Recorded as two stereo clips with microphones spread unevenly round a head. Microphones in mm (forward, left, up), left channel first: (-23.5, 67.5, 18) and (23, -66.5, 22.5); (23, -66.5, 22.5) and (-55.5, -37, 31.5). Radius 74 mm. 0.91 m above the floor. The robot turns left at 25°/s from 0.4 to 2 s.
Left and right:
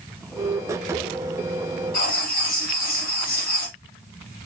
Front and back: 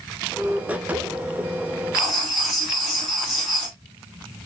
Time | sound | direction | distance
1.9 | writing | 120° left | 3.5 m